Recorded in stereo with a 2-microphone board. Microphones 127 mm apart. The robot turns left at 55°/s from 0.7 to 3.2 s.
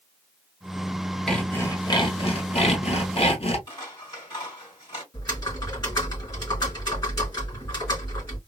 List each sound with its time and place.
1.3 s sawing: 175° left, 1.2 m; by 3.6 s 70° left, 1.2 m
3.7 s scissors: 35° left (ahead or behind), 3.5 m
5.1 s typing on a keyboard: 35° left (ahead or behind), 3.5 m